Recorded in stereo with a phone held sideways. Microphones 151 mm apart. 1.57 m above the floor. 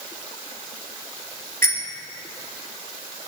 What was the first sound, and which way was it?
A bicycle bell, 70° right (ahead or behind).